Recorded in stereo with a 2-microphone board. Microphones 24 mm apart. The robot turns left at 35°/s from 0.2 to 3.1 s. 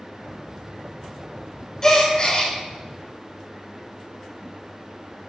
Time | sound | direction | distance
1.8 | a gasp | 30° left (ahead or behind) | 0.8 m